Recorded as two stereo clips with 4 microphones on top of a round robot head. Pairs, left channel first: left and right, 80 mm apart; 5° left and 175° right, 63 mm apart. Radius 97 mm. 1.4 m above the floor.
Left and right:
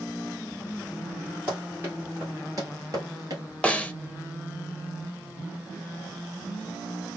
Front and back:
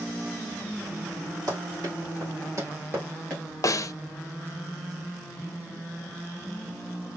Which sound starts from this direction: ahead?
A snare drum, at 3.6 s.